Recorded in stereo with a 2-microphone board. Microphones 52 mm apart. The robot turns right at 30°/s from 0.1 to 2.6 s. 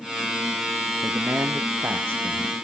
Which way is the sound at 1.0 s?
105° right.